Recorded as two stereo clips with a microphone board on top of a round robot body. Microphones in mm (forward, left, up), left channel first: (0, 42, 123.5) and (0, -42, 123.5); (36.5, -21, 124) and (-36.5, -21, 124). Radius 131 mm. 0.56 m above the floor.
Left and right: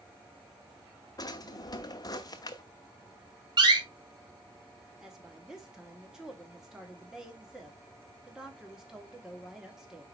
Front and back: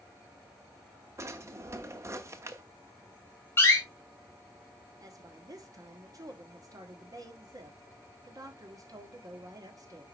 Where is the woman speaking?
175° right, 2.0 m.